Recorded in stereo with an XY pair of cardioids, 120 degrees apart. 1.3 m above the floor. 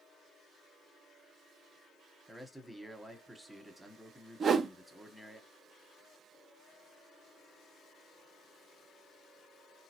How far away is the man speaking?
About 1.0 m.